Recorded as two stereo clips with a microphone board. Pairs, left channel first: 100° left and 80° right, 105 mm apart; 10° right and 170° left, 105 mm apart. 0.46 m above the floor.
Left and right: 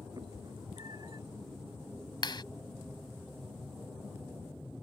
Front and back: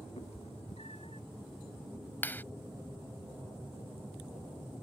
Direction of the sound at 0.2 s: 30° right.